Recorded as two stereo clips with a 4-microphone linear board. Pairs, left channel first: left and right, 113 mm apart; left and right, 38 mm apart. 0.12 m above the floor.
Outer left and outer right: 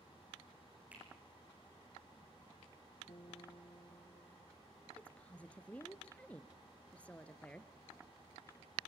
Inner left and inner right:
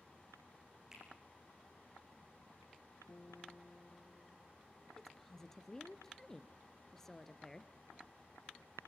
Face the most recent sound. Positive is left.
turn(degrees=10)  # may be behind; listen again after turning